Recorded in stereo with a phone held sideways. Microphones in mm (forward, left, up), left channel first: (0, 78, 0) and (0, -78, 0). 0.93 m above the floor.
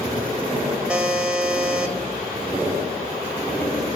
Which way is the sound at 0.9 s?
5° right (ahead or behind).